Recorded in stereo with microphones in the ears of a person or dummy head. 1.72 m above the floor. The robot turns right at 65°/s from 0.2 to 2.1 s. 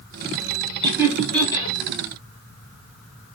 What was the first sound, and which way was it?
Laughter, 25° right (ahead or behind).